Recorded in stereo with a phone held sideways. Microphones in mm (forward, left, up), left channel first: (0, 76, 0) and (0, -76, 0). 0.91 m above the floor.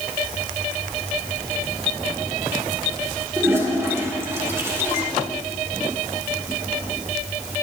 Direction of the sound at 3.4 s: 15° right (ahead or behind).